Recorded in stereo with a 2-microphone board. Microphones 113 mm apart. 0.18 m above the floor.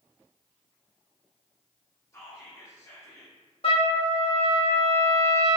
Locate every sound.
2.1 s whispering: 25° left (ahead or behind), 1.5 m
3.6 s a trumpet: 55° left (ahead or behind), 1.0 m